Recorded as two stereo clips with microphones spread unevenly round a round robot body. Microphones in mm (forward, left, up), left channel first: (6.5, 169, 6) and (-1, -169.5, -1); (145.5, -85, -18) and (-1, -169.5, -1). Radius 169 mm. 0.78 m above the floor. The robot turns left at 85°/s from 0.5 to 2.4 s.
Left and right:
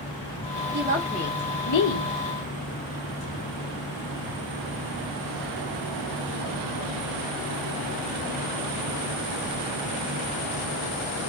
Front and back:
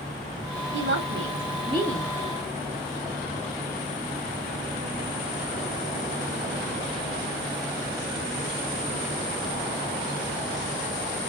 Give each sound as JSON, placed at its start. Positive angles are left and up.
{"t": 0.7, "sound": "a woman speaking", "azimuth_deg": -145, "distance_m": 1.9}